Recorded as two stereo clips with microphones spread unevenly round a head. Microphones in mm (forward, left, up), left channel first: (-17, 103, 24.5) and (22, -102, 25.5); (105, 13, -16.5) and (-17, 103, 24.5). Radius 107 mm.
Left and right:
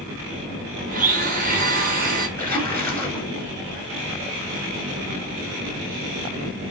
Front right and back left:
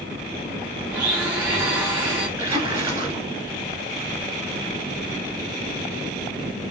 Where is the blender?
130° right, 0.9 m.